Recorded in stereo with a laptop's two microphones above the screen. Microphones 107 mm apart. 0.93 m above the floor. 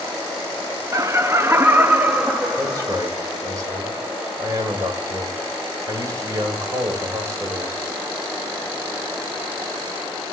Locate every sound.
0.9 s laughter: 30° right (ahead or behind), 0.7 m; by 3.1 s 10° right (ahead or behind), 1.9 m
2.6 s a man speaking: 30° right (ahead or behind), 5 m